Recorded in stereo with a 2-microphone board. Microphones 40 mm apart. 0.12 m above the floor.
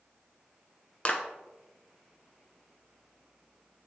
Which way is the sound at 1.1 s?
30° left (ahead or behind).